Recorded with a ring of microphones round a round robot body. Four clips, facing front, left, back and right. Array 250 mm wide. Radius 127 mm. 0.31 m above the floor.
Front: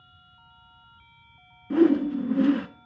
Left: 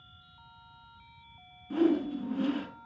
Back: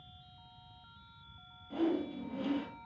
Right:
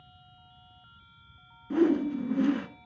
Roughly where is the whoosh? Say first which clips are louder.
Right 2 dB, front 13 dB; ahead.